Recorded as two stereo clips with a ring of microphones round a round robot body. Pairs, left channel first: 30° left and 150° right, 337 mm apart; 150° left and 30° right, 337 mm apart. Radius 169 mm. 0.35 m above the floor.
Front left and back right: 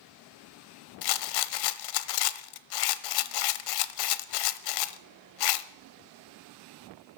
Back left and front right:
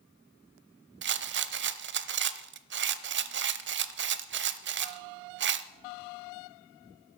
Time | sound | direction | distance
1.0 | a rattle | 25° left | 0.8 m